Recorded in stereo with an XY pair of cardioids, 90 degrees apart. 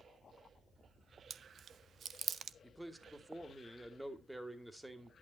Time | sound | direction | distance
1.3 | chewing | 60° right | 0.8 m
2.6 | a man speaking | 5° right | 2.5 m